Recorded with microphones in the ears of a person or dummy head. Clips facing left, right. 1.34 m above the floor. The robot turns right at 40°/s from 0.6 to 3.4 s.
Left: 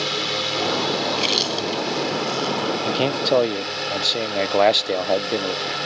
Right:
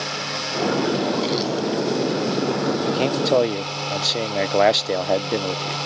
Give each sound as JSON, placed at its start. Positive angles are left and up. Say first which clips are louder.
{"t": 0.0, "sound": "a drone", "louder": "left 3 dB", "azimuth_deg": 50}
{"t": 1.1, "sound": "chewing", "louder": "right 3 dB", "side_deg": 30}
{"t": 2.9, "sound": "a man speaking", "louder": "left 1 dB", "side_deg": 20}